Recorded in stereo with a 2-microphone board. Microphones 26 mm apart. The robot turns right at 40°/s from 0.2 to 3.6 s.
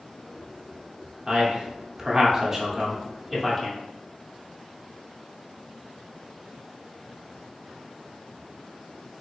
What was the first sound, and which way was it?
A man speaking, 15° right (ahead or behind).